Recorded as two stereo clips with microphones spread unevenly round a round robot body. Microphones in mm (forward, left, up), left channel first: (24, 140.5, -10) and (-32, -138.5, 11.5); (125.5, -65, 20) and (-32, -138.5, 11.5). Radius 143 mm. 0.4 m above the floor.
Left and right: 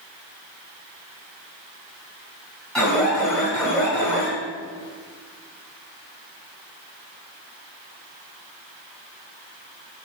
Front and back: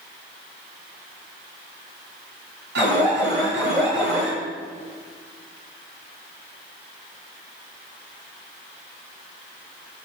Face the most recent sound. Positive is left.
turn(degrees=165)